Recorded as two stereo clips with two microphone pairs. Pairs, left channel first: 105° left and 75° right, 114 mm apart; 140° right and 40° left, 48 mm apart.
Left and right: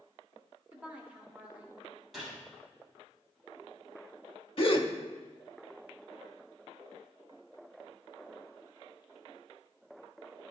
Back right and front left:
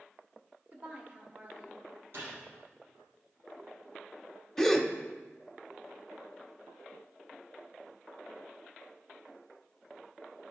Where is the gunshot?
15° left, 3 m.